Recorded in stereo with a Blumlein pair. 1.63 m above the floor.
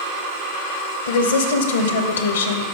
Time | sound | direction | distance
1.1 | a woman speaking | 65° left | 0.8 m